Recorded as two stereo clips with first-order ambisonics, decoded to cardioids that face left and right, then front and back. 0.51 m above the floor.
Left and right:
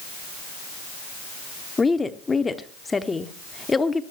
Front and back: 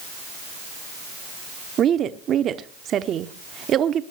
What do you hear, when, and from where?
1.8 s a woman speaking: 160° left, 0.8 m